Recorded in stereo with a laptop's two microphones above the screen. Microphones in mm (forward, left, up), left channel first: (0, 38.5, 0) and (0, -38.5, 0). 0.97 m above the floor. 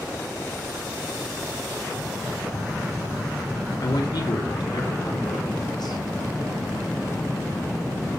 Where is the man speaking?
70° left (ahead or behind), 3 m.